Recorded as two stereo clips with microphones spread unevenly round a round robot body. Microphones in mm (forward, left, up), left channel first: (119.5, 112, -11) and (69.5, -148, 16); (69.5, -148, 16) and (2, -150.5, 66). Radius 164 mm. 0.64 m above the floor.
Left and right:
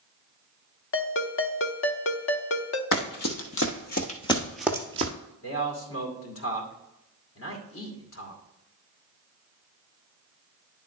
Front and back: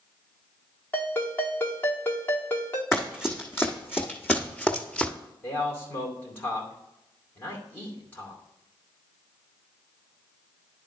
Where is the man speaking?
55° left, 2.5 m.